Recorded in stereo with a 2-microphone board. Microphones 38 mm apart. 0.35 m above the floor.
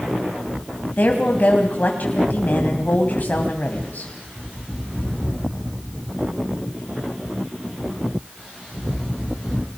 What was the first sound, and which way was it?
A woman speaking, 50° left (ahead or behind).